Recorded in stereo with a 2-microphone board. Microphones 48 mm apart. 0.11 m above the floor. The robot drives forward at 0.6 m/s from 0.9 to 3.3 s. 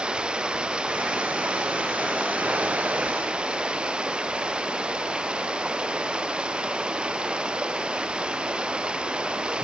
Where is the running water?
20° right (ahead or behind).